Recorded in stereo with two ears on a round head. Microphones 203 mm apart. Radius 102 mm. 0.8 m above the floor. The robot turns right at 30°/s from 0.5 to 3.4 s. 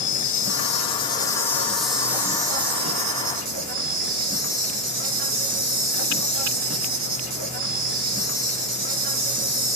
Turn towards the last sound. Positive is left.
turn(degrees=-135)